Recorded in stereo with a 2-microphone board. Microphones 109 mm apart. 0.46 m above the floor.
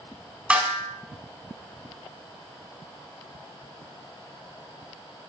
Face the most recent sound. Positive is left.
turn(degrees=-10)  # may be behind; listen again after turning